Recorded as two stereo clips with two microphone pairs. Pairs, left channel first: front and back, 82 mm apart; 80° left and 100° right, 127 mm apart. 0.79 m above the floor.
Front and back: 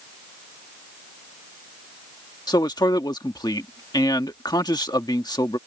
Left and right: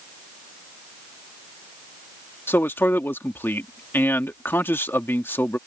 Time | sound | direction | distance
2.5 | a man speaking | 10° left | ?